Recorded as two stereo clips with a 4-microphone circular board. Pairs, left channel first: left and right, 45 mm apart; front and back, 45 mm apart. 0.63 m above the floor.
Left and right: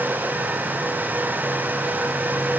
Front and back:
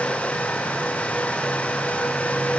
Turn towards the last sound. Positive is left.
No sound to turn to.